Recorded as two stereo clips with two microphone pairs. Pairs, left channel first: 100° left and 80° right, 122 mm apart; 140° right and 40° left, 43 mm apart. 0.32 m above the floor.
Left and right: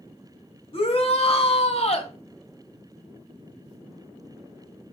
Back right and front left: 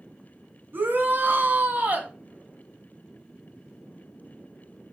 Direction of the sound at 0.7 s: 65° left.